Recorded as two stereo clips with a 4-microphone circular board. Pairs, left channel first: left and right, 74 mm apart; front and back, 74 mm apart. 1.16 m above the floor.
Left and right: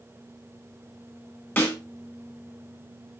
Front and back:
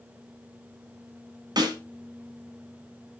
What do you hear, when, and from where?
1.6 s a snare drum: 155° left, 1.7 m